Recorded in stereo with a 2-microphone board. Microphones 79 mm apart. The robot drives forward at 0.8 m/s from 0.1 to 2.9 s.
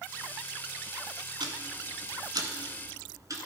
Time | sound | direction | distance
1.4 | ticking | 70° right (ahead or behind) | 1.1 m